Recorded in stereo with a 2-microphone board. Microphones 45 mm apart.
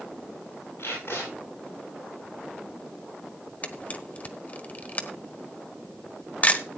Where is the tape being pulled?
65° left (ahead or behind), 8.5 m.